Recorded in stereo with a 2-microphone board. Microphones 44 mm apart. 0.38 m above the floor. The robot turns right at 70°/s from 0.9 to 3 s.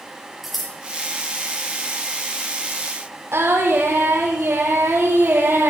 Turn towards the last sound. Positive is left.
turn(degrees=-85)